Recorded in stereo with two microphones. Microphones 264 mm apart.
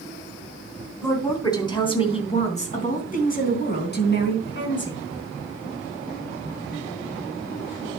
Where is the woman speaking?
10° left (ahead or behind), 3 m; by 5.0 s 50° left (ahead or behind), 4.5 m.